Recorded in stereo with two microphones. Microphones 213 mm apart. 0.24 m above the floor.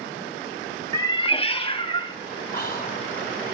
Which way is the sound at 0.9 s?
15° left (ahead or behind).